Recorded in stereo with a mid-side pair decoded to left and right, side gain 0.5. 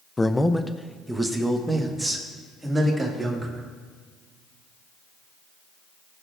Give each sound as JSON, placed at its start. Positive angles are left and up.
{"t": 0.2, "sound": "a man speaking", "azimuth_deg": 15, "distance_m": 0.6}